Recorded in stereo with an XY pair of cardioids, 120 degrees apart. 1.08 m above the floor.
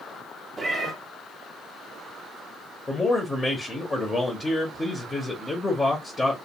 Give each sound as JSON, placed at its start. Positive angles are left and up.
{"t": 0.6, "sound": "a cat meowing", "azimuth_deg": -35, "distance_m": 0.7}
{"t": 2.9, "sound": "a man speaking", "azimuth_deg": 15, "distance_m": 0.6}